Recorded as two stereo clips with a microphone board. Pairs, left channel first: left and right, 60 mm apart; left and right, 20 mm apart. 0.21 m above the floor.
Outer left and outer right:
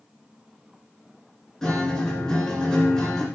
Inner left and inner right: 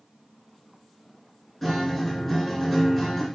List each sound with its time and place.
1.6 s a guitar: 10° left (ahead or behind), 3 m